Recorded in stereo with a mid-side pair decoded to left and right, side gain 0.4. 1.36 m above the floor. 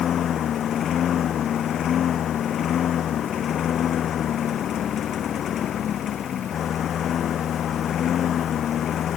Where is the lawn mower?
65° left.